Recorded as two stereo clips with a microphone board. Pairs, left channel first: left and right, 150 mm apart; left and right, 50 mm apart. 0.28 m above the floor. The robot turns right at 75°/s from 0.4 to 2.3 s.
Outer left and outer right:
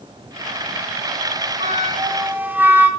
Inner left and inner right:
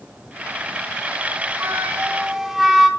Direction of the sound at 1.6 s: 65° right.